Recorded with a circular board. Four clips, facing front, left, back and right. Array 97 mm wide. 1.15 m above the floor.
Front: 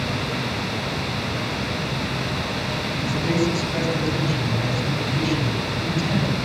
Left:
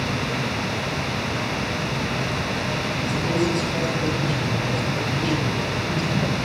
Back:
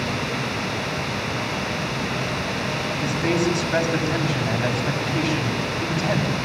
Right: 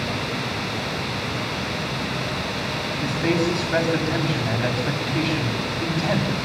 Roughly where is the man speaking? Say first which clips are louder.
Right 2 dB, even; behind right.